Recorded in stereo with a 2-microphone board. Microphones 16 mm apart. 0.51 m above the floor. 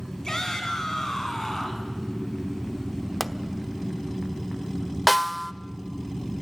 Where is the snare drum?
5° left (ahead or behind), 0.7 m.